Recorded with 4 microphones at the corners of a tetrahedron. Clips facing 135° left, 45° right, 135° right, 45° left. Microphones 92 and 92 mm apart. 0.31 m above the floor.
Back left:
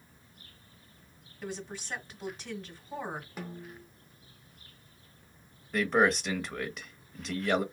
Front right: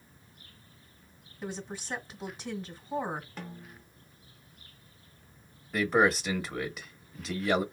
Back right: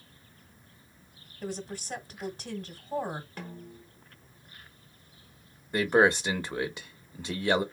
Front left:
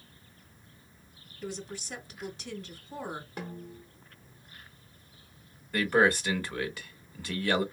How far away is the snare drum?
About 1.2 m.